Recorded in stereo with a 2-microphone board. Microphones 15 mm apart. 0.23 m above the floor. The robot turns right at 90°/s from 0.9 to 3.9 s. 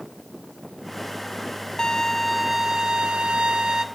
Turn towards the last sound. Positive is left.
turn(degrees=-40)